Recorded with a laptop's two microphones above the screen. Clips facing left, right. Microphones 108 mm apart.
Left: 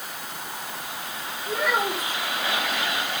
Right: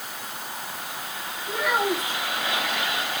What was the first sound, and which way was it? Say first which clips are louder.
A child speaking: right 1 dB; 35° left (ahead or behind).